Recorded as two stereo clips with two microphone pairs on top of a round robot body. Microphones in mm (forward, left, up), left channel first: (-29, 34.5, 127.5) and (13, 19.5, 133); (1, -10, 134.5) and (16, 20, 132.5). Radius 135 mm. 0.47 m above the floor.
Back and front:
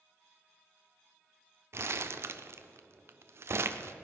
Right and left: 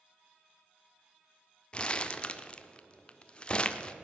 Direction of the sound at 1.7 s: 55° right.